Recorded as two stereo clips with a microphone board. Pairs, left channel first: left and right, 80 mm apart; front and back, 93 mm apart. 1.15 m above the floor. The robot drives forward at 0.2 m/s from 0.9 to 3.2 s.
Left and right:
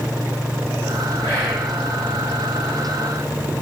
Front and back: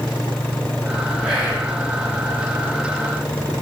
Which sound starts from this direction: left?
Whispering, at 1.2 s.